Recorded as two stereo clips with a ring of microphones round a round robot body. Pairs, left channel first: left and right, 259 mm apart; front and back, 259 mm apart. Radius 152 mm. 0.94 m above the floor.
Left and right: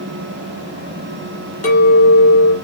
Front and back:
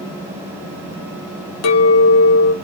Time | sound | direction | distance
1.6 | a clink | 25° left | 1.5 m